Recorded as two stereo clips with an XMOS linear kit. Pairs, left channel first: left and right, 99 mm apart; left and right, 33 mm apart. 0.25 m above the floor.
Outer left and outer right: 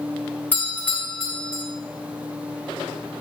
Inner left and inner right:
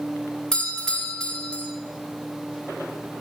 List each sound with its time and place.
0.5 s a doorbell: 20° left (ahead or behind), 1.6 m